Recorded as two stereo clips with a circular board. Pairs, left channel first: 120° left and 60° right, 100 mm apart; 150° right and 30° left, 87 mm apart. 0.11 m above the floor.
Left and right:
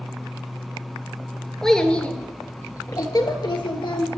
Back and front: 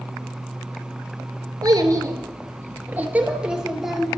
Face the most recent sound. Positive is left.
turn(degrees=120)